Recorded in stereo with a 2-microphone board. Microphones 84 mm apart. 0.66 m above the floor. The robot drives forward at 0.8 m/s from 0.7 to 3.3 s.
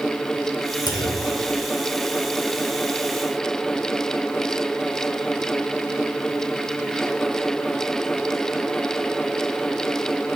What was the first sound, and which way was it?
A clunk, 60° left (ahead or behind).